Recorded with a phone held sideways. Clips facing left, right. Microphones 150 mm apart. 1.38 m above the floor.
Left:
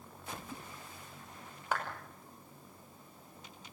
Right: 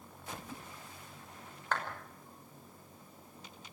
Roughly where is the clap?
Centre.